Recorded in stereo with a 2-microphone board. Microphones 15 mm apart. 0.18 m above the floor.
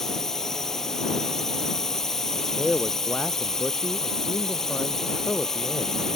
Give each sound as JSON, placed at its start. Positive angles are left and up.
{"t": 0.0, "sound": "a drone", "side_deg": 25}
{"t": 2.4, "sound": "a man speaking", "side_deg": 35}